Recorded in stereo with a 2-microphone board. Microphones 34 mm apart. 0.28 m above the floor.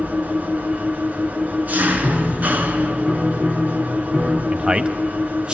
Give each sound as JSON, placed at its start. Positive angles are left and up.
{"t": 0.0, "sound": "an engine running", "side_deg": -45, "distance_m": 2.0}
{"t": 2.0, "sound": "a piano", "side_deg": 0, "distance_m": 5.5}
{"t": 4.5, "sound": "a man speaking", "side_deg": -30, "distance_m": 1.2}